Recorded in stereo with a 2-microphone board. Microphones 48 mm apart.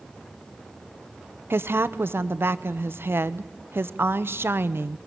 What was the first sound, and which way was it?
A woman speaking, 55° right (ahead or behind).